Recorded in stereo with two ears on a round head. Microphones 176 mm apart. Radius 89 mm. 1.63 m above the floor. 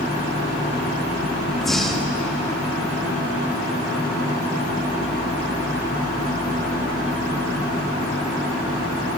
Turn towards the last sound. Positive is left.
turn(degrees=0)  # may be behind; listen again after turning